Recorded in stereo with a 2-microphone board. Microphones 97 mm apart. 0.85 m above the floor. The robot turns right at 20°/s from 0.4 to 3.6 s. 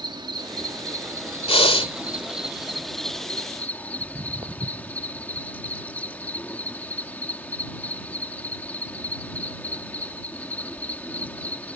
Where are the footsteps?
60° right (ahead or behind); by 11.5 s 50° right (ahead or behind).